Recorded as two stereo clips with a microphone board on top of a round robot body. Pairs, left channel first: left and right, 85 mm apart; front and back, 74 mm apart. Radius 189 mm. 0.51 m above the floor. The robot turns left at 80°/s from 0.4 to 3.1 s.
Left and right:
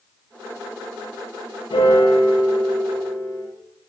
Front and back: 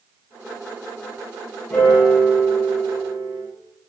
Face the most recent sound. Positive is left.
turn(degrees=-30)